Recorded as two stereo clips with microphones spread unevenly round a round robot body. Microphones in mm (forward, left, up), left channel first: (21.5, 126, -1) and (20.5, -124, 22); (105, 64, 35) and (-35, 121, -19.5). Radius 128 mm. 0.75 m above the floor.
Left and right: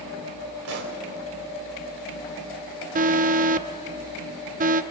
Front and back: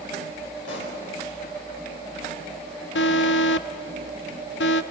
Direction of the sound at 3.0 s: 30° right.